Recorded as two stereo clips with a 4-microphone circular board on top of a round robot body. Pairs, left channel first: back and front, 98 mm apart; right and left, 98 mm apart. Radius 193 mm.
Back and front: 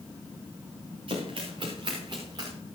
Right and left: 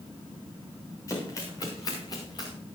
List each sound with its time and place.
1.1 s running footsteps: 30° right, 7 m; by 2.5 s 45° right, 5.5 m